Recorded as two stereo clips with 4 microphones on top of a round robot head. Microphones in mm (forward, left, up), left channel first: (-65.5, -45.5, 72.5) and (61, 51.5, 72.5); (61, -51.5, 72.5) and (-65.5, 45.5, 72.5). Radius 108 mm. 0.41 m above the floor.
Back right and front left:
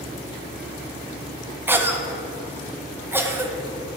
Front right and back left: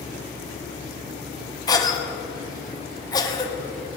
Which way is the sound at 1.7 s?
20° right.